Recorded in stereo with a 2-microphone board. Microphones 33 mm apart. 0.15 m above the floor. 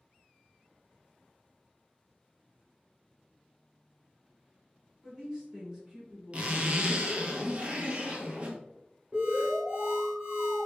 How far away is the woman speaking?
About 1.5 m.